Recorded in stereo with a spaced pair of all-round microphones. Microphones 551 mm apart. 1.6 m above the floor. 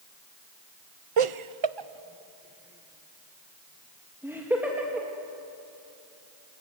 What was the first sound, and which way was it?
Laughter, 65° right (ahead or behind).